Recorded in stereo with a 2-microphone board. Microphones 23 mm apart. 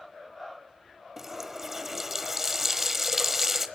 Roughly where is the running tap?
Centre.